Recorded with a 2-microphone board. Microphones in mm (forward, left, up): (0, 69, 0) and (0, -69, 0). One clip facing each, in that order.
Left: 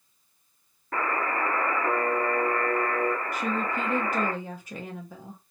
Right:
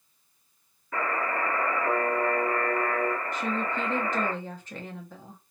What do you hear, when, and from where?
0.9 s a buzzer: 50° left (ahead or behind), 1.7 m
3.3 s a woman speaking: 10° left (ahead or behind), 0.5 m